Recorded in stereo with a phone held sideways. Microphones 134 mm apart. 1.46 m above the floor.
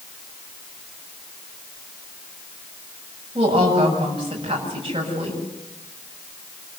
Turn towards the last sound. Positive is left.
turn(degrees=-40)  # may be behind; listen again after turning